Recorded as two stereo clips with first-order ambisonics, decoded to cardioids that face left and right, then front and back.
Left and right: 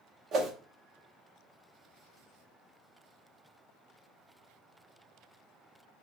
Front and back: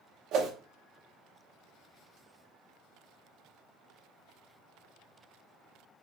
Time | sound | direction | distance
0.3 | a whoosh | 145° right | 0.8 m